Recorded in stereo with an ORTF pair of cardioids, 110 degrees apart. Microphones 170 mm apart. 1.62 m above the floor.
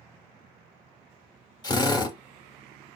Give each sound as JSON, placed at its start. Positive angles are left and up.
{"t": 1.6, "sound": "a drill", "azimuth_deg": 25, "distance_m": 1.2}